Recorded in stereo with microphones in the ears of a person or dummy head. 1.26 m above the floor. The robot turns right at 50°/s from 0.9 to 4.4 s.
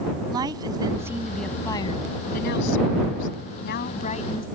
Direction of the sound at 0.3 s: 25° right.